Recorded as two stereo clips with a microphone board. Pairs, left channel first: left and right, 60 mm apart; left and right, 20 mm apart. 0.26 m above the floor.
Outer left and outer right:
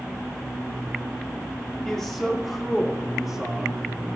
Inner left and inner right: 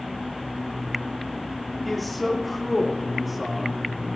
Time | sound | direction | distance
1.9 | a man speaking | 10° left (ahead or behind) | 5.5 m